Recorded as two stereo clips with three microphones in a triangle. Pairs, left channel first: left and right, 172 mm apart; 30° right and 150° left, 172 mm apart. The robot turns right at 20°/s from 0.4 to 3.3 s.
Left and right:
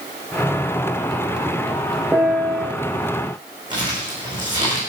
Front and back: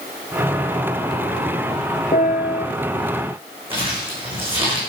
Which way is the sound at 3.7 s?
150° right.